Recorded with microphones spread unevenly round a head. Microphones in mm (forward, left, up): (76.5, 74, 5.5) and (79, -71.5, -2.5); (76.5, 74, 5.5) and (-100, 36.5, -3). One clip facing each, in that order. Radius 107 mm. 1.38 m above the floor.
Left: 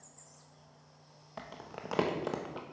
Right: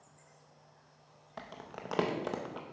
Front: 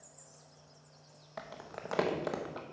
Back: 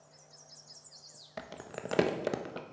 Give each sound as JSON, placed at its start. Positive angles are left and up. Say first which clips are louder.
{"t": 1.4, "sound": "crumpling", "louder": "left 1 dB, back 3 dB", "azimuth_deg": 170, "distance_m": 0.6}